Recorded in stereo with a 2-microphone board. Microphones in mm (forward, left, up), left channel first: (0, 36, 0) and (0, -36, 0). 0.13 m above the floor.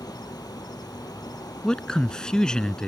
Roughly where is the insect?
Left.